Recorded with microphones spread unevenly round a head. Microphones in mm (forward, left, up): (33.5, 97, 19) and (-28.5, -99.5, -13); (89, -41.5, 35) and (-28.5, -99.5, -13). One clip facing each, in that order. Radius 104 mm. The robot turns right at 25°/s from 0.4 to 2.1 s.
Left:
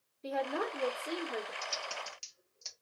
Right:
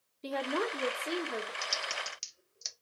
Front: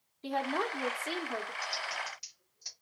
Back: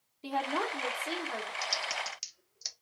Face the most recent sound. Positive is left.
turn(degrees=-175)